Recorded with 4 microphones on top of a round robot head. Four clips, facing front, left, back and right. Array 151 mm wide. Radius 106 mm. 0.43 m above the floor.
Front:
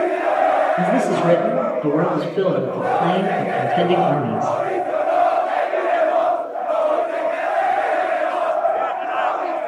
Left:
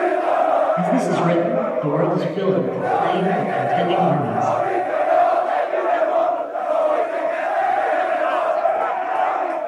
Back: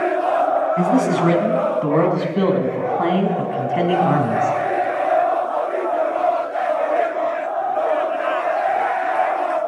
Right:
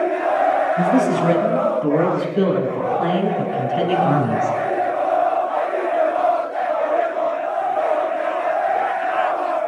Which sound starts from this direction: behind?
A man speaking, at 0.8 s.